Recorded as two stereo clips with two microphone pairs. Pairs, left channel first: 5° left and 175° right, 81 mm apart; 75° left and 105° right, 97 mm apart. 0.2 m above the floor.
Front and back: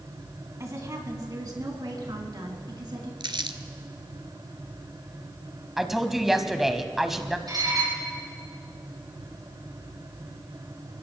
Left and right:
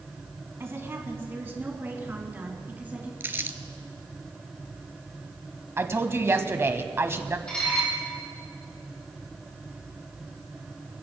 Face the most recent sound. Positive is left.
turn(degrees=155)